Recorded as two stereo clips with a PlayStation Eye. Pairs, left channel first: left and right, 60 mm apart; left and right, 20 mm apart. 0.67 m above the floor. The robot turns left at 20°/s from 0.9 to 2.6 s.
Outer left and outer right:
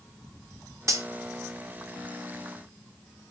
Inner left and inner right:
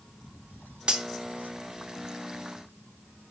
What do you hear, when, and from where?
0.9 s cutlery clinking: 55° right (ahead or behind), 0.5 m